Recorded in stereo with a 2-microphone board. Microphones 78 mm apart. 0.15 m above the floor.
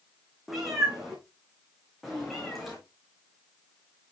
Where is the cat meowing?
5° right (ahead or behind), 4 m; by 2.8 s centre (ahead or behind), 5.5 m.